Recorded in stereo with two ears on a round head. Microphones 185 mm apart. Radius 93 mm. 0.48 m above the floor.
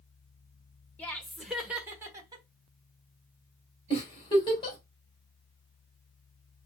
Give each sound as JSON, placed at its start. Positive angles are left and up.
{"t": 1.0, "sound": "laughter", "side_deg": 10, "distance_m": 1.6}
{"t": 3.9, "sound": "a giggle", "side_deg": 20, "distance_m": 2.5}